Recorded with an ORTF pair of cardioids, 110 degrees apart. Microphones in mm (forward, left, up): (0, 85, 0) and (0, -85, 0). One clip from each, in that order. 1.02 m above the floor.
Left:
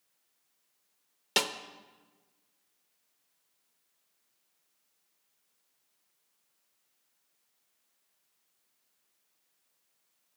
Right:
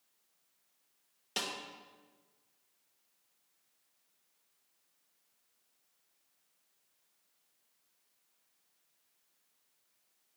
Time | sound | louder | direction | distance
1.4 | a snare drum | left 8 dB | 50° left | 0.8 m